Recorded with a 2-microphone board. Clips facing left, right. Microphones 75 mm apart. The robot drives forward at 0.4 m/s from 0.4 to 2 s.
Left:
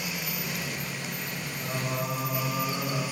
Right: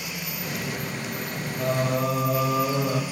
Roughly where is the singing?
Right.